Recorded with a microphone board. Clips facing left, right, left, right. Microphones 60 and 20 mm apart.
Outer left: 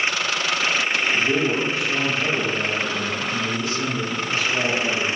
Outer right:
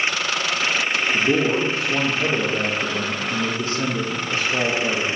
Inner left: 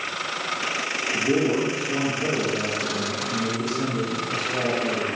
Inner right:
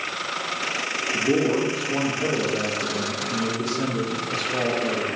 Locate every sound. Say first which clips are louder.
1.1 s a man speaking: outer right 4 dB, inner right 1 dB; 35° right (ahead or behind), 1.2 m